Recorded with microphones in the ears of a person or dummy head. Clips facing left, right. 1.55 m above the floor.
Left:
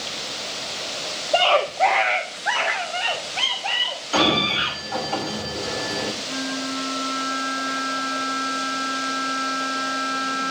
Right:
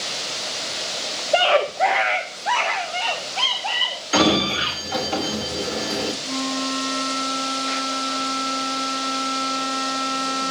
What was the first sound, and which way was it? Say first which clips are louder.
A scream: right 1 dB; 30° right (ahead or behind).